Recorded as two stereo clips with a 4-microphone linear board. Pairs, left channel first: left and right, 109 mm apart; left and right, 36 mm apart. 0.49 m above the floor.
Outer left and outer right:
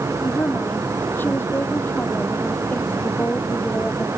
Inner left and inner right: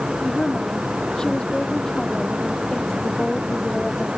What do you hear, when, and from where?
0.2 s a woman speaking: 20° left (ahead or behind); by 4.1 s 15° left (ahead or behind)